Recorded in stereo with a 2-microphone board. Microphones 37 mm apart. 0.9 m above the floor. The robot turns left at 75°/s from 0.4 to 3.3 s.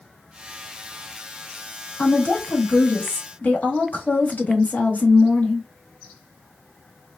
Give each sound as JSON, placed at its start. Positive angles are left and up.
{"t": 2.0, "sound": "a woman speaking", "azimuth_deg": 145, "distance_m": 1.1}